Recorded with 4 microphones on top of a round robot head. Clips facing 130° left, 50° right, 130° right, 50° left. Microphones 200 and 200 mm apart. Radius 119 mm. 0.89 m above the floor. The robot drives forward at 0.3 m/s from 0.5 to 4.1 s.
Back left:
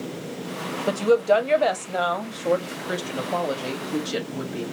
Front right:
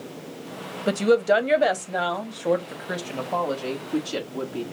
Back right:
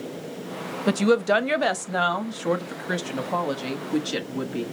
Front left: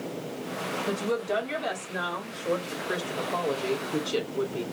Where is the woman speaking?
120° right, 0.9 m; by 4.6 s 155° right, 1.6 m.